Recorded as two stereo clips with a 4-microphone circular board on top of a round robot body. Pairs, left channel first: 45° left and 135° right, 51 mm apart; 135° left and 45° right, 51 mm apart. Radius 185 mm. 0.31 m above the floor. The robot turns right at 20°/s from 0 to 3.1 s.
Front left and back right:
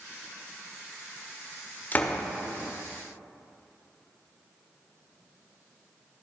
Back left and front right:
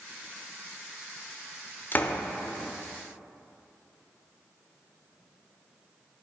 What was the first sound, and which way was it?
A door slam, 95° left.